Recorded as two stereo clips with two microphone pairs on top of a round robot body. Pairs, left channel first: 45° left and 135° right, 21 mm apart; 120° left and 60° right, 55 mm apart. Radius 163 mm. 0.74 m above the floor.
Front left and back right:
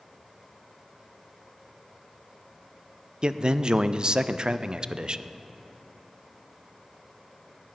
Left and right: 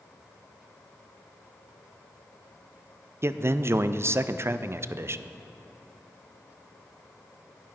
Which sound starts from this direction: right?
A man speaking, at 3.2 s.